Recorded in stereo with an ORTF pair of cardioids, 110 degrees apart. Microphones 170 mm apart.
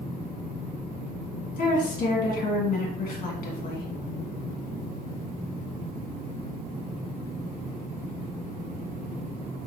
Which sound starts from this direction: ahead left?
A woman speaking, at 1.6 s.